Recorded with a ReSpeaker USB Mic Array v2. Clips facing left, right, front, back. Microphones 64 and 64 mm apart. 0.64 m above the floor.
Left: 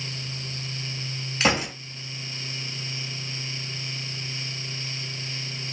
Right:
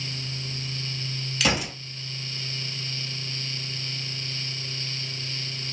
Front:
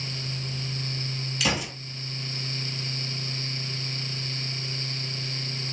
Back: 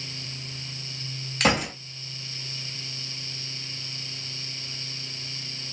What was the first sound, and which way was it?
A gunshot, 145° left.